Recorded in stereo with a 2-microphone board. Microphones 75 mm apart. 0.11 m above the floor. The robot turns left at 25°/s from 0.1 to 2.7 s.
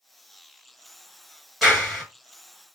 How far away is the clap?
About 1.5 m.